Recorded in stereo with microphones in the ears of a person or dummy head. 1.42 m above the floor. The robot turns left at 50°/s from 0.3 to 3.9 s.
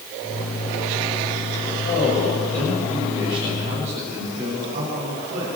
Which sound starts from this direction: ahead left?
A man speaking, at 1.9 s.